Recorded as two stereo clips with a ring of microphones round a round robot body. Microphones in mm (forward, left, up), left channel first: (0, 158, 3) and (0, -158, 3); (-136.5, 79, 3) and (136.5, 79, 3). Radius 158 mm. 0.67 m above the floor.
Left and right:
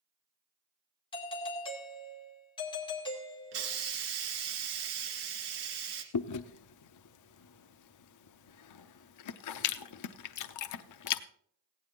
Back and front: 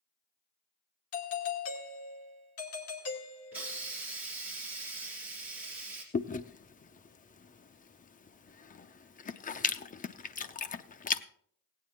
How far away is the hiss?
About 2 m.